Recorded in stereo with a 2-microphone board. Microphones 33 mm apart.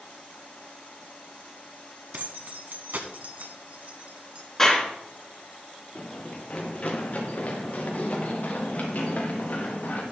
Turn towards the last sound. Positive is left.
turn(degrees=50)  # may be behind; listen again after turning